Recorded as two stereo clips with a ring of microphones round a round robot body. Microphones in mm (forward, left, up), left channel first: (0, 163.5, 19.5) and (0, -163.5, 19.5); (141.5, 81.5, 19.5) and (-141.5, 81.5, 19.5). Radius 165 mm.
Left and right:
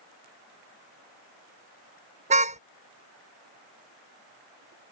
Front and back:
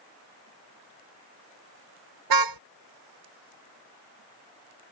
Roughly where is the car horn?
Behind.